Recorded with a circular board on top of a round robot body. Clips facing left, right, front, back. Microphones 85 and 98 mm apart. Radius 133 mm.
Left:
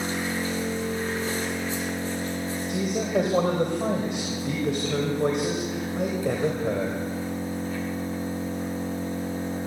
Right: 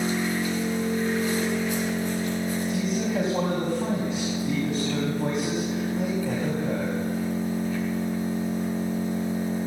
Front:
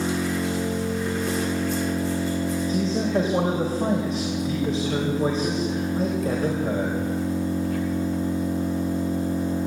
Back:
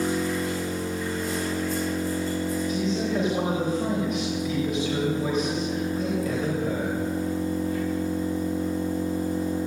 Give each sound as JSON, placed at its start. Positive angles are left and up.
{"t": 0.0, "sound": "an engine running", "azimuth_deg": 30, "distance_m": 9.0}
{"t": 2.7, "sound": "a man speaking", "azimuth_deg": 60, "distance_m": 4.0}